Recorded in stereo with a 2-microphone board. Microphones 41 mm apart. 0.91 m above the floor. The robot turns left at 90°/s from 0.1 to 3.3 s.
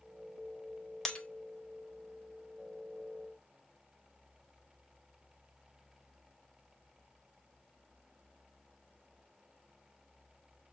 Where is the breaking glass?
15° left (ahead or behind), 0.5 m; by 1.3 s 30° left (ahead or behind), 0.5 m.